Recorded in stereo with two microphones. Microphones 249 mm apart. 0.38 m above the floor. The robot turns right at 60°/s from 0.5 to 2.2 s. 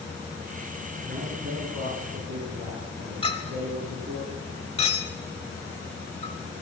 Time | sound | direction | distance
1.1 | a man speaking | 130° right | 5.5 m
3.2 | a clink | 20° left (ahead or behind) | 1.4 m